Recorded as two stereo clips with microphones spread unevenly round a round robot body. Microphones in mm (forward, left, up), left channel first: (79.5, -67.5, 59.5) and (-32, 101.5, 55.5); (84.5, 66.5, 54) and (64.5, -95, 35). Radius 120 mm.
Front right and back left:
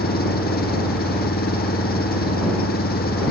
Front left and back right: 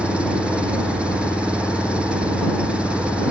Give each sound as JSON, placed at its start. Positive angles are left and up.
{"t": 0.0, "sound": "an engine running", "azimuth_deg": -15}